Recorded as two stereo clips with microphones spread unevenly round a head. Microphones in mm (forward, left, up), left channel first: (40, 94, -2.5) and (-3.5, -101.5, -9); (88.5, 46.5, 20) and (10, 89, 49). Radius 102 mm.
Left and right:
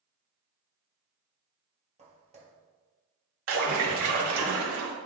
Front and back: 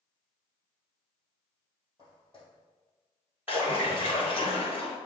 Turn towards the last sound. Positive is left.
turn(degrees=-130)